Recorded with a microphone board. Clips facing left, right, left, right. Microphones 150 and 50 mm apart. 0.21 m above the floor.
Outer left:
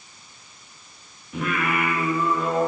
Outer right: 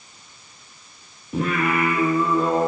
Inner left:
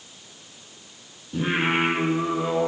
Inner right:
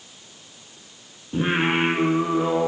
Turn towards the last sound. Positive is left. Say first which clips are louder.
# outer right 3 dB, inner right 2 dB
turn(degrees=-35)  # may be behind; listen again after turning